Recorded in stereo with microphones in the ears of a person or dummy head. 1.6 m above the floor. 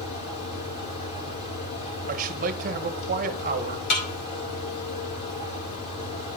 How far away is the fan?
About 3.5 m.